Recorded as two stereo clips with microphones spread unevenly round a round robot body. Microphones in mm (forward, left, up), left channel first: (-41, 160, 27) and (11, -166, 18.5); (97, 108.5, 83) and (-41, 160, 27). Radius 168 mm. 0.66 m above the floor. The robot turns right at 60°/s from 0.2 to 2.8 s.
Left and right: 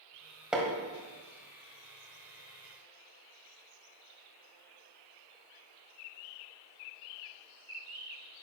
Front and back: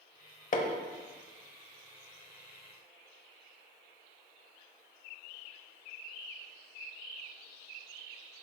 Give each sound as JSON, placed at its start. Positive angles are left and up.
{"t": 0.5, "sound": "hammering", "azimuth_deg": 5, "distance_m": 1.3}